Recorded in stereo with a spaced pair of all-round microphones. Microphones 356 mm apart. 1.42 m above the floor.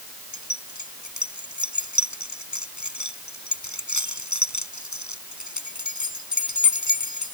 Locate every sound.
0.3 s keys jangling: 50° left (ahead or behind)